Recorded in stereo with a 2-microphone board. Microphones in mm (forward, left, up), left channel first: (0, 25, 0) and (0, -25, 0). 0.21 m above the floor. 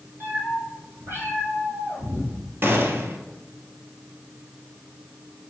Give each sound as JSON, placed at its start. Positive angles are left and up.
{"t": 0.2, "sound": "a cat meowing", "side_deg": -50, "distance_m": 3.5}
{"t": 2.6, "sound": "a gunshot", "side_deg": -50, "distance_m": 1.1}